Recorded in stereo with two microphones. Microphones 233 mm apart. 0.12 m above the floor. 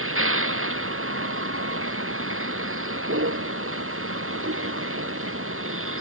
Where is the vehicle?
65° right (ahead or behind).